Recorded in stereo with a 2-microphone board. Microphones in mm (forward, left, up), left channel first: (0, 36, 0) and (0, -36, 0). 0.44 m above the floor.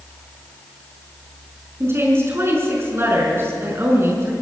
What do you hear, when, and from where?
1.8 s a woman speaking: 35° right (ahead or behind), 6 m